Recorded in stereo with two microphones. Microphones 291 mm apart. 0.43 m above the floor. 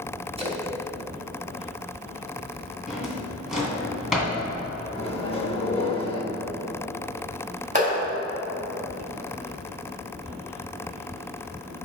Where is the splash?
20° right (ahead or behind), 0.8 m.